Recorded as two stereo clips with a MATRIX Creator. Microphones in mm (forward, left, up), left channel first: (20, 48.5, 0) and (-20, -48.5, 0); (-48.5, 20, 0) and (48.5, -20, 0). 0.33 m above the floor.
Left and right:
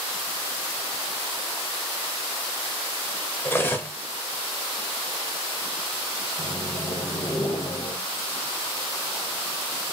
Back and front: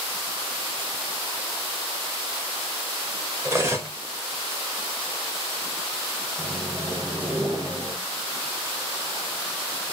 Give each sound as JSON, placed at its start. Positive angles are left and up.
{"t": 3.5, "sound": "cutlery clinking", "azimuth_deg": 15, "distance_m": 0.5}
{"t": 6.4, "sound": "a microwave", "azimuth_deg": 55, "distance_m": 1.8}